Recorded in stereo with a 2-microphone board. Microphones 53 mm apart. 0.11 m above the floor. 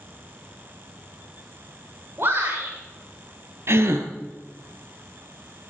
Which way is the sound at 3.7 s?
55° right (ahead or behind).